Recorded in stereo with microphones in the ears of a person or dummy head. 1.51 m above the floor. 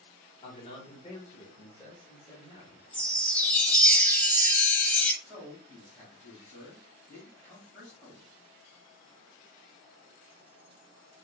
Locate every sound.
0.4 s a man speaking: 40° left (ahead or behind), 1.0 m; by 2.8 s 5° right (ahead or behind), 1.7 m
2.9 s a chime: 10° left (ahead or behind), 0.6 m
5.2 s a man speaking: 20° right (ahead or behind), 2 m